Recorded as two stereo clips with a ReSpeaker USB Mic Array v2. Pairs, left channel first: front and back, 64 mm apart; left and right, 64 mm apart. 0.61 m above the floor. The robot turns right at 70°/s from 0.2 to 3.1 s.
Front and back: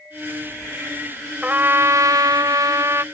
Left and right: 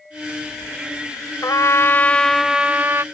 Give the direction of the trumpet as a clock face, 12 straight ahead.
8 o'clock.